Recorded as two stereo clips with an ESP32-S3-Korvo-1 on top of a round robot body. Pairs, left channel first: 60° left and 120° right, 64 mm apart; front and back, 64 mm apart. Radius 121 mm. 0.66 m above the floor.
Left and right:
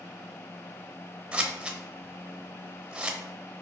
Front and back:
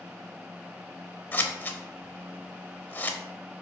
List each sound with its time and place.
1.3 s scissors: 50° right, 0.7 m